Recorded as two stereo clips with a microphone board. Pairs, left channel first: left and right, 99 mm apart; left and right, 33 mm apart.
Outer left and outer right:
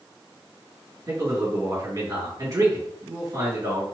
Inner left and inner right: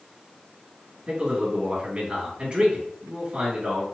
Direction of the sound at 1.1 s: 35° right (ahead or behind).